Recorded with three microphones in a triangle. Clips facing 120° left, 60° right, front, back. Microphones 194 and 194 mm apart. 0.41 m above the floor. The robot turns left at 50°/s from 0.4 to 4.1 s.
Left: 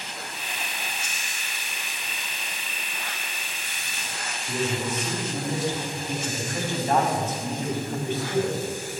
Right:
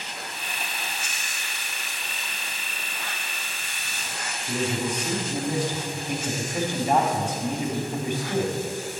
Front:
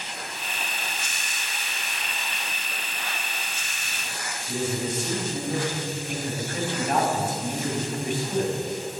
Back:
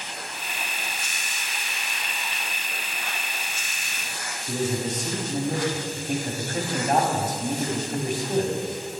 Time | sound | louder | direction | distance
4.5 | a man speaking | right 1 dB, back 1 dB | 135° right | 2.5 m